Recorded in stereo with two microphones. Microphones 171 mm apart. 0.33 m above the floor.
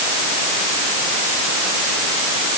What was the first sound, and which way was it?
Only background noise.